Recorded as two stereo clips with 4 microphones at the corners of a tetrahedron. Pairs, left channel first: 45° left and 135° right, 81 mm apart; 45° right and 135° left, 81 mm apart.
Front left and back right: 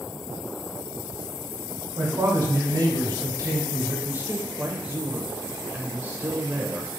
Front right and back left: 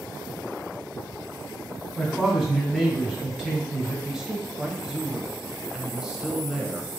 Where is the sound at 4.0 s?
155° right, 0.9 m.